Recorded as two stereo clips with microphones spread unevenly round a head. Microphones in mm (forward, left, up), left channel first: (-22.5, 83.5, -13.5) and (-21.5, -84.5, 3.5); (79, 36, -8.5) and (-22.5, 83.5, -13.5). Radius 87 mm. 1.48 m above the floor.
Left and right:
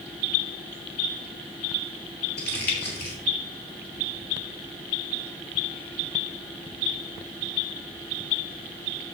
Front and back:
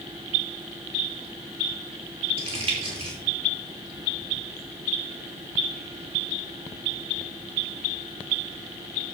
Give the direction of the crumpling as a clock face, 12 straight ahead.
8 o'clock.